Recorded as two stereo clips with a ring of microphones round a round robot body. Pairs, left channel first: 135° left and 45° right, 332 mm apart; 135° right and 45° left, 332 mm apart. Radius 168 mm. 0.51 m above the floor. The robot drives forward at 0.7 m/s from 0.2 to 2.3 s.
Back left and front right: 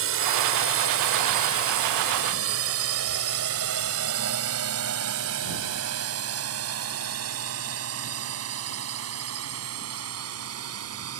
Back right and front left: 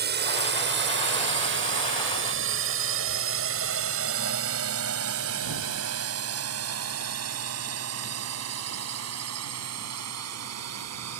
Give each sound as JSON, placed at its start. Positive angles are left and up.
{"t": 0.0, "sound": "a drone", "azimuth_deg": -5}